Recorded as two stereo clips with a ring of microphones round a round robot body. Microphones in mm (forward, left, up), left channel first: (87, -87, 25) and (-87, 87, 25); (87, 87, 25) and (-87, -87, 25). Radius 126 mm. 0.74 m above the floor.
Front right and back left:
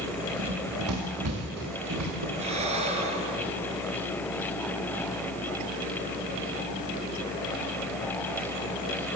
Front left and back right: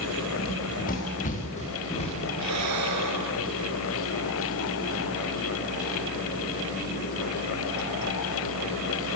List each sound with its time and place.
0.4 s running footsteps: 100° left, 6.5 m; by 2.3 s 110° left, 7 m
2.4 s breathing: 160° right, 3.5 m